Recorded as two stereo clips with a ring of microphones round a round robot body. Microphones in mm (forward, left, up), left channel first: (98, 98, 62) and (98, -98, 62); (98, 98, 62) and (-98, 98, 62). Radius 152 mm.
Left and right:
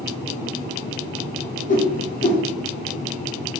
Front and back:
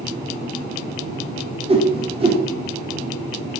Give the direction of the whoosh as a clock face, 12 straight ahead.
8 o'clock.